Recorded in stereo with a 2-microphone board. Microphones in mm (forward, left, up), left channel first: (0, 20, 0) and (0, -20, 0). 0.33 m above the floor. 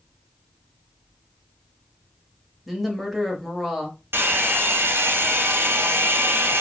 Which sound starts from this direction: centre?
A woman speaking, at 2.7 s.